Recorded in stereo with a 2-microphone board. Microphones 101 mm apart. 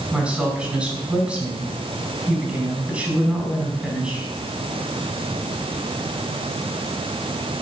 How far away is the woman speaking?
About 4.5 m.